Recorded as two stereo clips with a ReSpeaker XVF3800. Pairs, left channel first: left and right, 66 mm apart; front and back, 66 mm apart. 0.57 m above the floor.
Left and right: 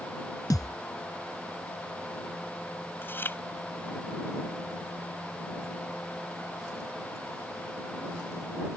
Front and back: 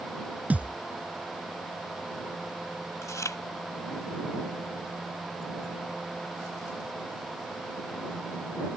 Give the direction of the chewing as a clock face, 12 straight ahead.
11 o'clock.